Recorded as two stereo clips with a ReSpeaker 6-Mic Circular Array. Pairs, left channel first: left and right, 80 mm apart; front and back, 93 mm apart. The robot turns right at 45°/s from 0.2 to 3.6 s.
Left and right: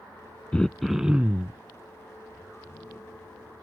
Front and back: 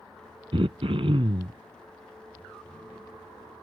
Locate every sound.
0.5 s throat clearing: 165° left; by 1.6 s 150° right